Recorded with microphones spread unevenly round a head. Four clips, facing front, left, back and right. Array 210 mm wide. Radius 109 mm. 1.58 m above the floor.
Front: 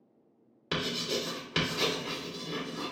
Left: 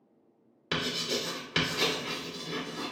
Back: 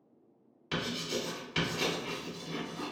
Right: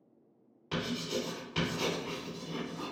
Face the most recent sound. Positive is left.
turn(degrees=50)